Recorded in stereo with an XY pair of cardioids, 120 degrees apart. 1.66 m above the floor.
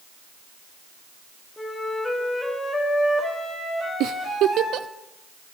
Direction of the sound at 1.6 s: 15° left.